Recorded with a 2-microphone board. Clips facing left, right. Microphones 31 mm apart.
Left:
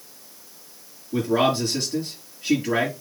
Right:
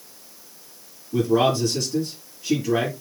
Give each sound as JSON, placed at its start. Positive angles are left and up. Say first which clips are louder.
{"t": 1.1, "sound": "a man speaking", "louder": "right 1 dB", "side_deg": 40, "distance_m": 6.0}